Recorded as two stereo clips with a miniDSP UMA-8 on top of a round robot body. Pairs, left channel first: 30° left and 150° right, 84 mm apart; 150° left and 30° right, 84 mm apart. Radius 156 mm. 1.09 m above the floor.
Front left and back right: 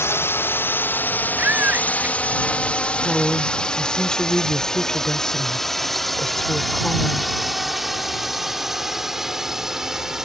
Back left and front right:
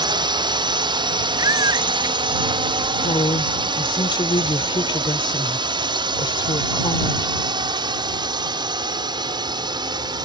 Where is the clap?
No clap in this recording.